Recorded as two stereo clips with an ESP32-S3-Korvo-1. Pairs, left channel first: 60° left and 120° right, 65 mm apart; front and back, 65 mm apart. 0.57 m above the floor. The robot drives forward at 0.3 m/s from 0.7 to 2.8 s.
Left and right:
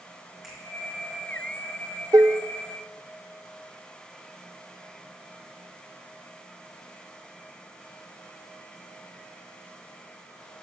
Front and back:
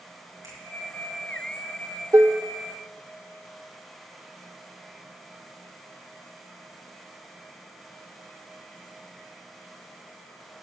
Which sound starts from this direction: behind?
A finger snap, at 0.4 s.